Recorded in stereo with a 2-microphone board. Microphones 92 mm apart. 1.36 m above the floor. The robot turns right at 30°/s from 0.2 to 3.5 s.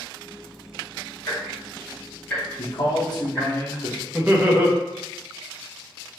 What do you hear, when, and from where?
1.2 s ticking: 35° left (ahead or behind), 1.4 m; by 3.5 s 15° right (ahead or behind), 1.4 m
2.6 s a man speaking: 55° left (ahead or behind), 0.9 m; by 4.0 s 35° left (ahead or behind), 0.9 m
4.1 s laughter: 15° right (ahead or behind), 0.7 m